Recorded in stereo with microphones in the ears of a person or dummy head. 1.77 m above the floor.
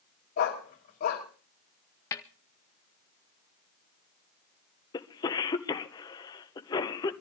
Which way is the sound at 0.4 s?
45° left (ahead or behind).